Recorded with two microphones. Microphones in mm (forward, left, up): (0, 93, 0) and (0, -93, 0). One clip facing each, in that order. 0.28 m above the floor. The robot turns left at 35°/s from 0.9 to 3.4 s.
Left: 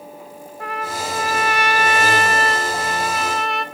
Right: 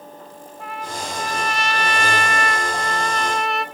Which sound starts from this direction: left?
A trumpet, at 0.6 s.